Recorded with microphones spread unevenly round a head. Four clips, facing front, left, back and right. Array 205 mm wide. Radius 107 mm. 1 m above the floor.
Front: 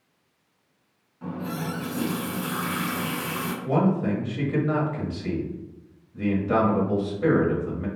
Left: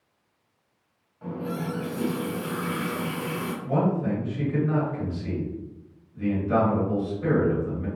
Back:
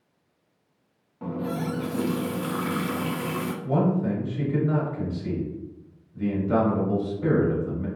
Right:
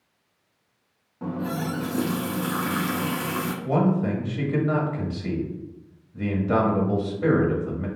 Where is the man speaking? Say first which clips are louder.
Right 2 dB, front 1 dB; 40° right, 1.4 m.